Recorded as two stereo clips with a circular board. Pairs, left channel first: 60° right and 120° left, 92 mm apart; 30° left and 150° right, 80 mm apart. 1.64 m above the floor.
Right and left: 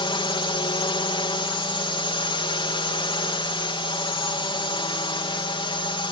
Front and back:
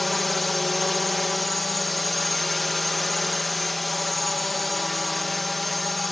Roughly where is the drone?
Ahead right.